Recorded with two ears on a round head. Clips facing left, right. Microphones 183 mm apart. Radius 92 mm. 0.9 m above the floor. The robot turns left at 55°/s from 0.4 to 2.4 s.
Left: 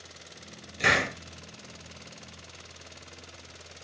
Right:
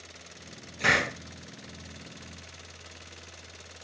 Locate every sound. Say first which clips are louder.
0.8 s a hiss: left 1 dB; 25° left (ahead or behind), 1.8 m; by 1.1 s 10° left (ahead or behind), 1.8 m